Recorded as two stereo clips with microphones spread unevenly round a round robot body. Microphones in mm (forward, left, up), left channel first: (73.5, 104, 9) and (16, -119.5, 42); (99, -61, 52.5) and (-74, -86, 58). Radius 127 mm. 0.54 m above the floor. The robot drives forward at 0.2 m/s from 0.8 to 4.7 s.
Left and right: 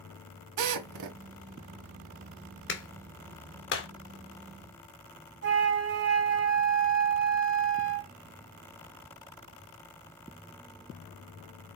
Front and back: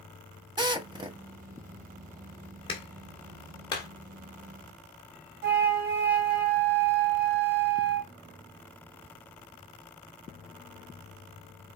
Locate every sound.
0.6 s a drill: 105° right, 1.5 m; by 1.2 s 110° right, 1.5 m
2.7 s a clap: 65° left, 1.9 m; by 3.9 s 75° left, 1.8 m
5.4 s a flute: 150° right, 2 m